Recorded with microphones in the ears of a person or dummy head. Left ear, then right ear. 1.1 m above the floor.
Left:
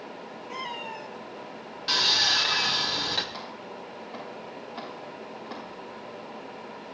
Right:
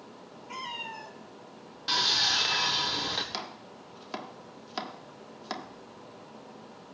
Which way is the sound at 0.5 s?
5° right (ahead or behind).